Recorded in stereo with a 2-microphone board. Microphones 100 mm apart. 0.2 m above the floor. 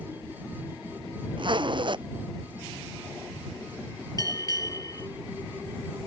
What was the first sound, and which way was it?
A zipper, 50° right (ahead or behind).